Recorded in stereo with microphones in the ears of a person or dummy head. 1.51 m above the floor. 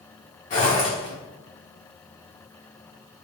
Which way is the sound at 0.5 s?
40° left (ahead or behind).